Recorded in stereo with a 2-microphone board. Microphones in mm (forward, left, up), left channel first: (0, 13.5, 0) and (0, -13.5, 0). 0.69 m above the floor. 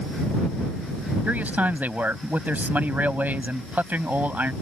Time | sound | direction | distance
1.2 | a man speaking | 80° right | ?